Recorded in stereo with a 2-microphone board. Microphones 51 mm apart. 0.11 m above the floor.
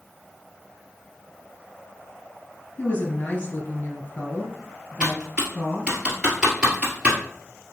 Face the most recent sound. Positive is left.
turn(degrees=-15)  # may be behind; listen again after turning